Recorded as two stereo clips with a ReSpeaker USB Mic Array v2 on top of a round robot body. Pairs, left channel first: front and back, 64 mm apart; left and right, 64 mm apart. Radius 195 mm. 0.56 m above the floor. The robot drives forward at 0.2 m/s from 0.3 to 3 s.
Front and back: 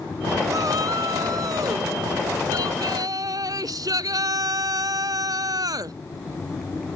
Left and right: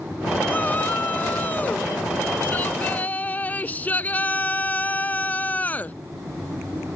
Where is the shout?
155° left.